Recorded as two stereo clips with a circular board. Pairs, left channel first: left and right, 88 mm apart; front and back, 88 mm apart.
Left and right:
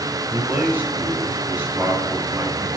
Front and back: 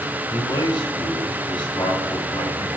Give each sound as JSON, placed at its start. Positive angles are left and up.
{"t": 0.3, "sound": "a man speaking", "azimuth_deg": -25, "distance_m": 5.5}